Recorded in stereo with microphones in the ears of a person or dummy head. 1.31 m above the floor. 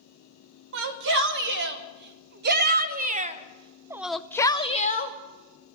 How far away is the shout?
About 2 m.